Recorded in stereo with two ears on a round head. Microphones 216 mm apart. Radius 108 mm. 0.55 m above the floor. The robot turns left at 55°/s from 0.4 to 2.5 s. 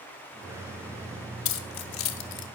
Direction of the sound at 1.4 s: 55° left (ahead or behind).